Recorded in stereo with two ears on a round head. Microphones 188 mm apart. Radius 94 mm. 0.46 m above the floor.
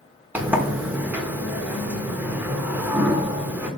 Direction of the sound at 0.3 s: 10° right (ahead or behind).